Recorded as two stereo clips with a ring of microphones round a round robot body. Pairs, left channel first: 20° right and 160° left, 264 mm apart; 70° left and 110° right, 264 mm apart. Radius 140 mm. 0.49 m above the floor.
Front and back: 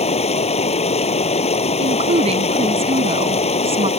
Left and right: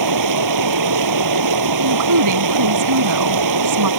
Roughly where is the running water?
Right.